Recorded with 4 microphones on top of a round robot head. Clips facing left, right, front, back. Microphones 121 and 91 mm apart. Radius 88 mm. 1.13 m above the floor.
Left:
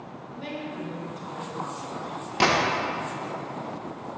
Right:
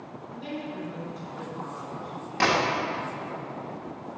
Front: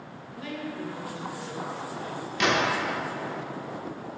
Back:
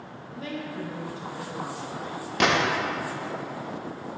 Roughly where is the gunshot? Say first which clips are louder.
Left 2 dB, back 2 dB; behind left.